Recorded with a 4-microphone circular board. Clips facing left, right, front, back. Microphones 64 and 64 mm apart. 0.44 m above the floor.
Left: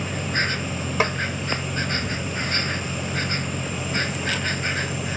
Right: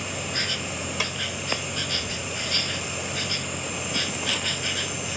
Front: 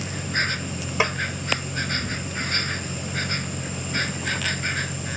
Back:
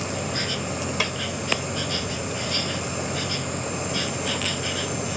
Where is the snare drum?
55° left.